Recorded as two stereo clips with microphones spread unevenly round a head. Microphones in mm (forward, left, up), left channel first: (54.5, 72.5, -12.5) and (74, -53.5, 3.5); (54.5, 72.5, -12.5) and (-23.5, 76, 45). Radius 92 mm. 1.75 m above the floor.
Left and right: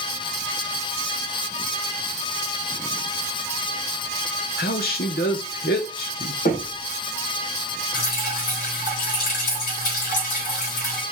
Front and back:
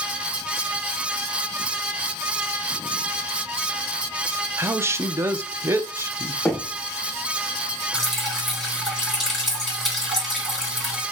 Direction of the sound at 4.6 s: 135° left.